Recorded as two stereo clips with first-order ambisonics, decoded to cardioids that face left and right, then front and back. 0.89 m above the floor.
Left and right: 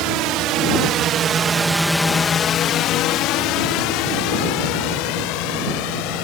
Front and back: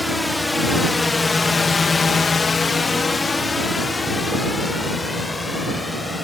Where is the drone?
85° right; by 6.2 s 80° left.